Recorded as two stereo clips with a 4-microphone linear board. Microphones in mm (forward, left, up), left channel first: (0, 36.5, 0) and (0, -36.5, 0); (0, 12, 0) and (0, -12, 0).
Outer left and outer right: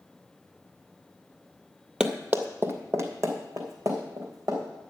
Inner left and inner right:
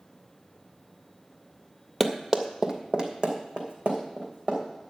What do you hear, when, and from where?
2.0 s running footsteps: 10° right (ahead or behind), 1.0 m; by 4.8 s 55° right (ahead or behind), 4 m